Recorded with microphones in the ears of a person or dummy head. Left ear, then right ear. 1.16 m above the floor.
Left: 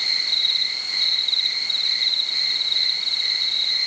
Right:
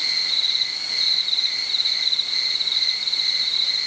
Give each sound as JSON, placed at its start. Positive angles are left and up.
{"t": 0.0, "sound": "an insect", "side_deg": -5, "distance_m": 6.0}